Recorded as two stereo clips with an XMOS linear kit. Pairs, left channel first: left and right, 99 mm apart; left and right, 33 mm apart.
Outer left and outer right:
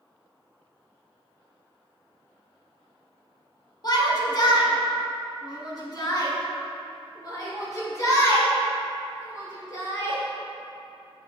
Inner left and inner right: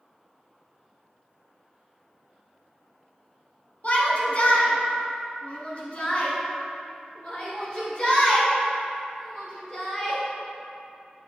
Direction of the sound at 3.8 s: 45° left (ahead or behind).